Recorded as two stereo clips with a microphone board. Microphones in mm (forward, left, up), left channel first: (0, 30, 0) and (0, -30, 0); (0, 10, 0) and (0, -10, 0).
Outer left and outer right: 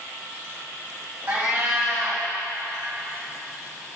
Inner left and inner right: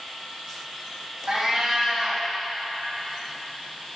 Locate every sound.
1.3 s a cat meowing: 40° right (ahead or behind), 3 m